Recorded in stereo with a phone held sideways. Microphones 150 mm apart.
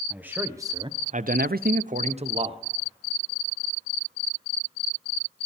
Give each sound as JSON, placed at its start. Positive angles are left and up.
{"t": 0.1, "sound": "a man speaking", "side_deg": -10, "distance_m": 1.2}